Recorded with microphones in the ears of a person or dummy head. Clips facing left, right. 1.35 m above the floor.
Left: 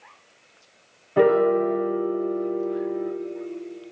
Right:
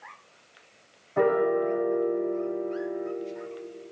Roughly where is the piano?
Left.